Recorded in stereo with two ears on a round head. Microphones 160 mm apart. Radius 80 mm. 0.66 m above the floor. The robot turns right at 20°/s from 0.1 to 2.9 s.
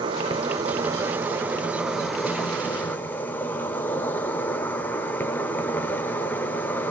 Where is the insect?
40° right, 0.8 m; by 6.9 s 15° left, 0.8 m.